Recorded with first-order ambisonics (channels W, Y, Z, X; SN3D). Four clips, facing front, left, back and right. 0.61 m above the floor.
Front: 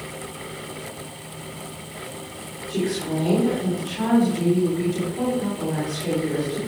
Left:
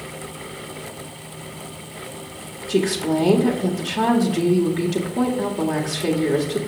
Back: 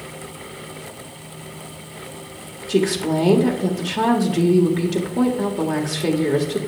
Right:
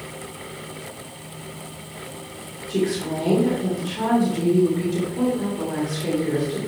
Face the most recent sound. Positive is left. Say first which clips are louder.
# left 4 dB, back 6 dB
turn(degrees=145)